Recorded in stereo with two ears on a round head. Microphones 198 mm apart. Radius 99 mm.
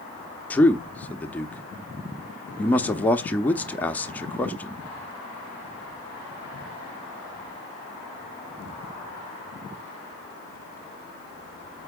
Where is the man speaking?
5° left (ahead or behind), 0.7 m.